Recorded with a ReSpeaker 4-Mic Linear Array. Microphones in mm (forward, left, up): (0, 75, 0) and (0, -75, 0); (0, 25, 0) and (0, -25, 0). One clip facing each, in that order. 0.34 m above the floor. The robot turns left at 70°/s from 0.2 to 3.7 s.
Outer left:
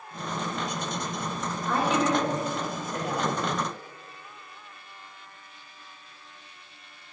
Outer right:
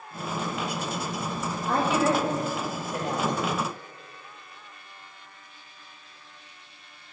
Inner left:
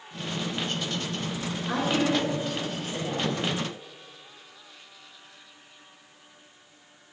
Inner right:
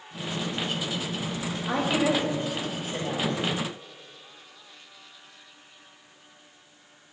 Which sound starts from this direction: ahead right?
A woman speaking, at 1.7 s.